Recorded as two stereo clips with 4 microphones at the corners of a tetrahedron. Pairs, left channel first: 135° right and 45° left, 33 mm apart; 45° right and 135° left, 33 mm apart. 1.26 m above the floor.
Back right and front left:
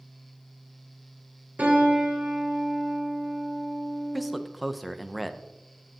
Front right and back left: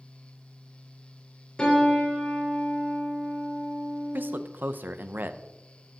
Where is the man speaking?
135° left, 0.6 m.